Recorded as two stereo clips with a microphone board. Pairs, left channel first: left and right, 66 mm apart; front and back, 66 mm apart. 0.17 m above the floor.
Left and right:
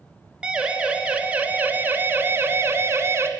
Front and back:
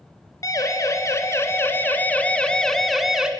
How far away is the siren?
About 2.5 m.